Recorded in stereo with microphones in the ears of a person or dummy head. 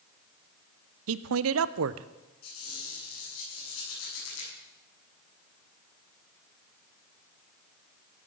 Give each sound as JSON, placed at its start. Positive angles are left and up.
{"t": 1.1, "sound": "a man speaking", "side_deg": -80, "distance_m": 0.6}
{"t": 2.4, "sound": "a squeak", "side_deg": 80, "distance_m": 7.0}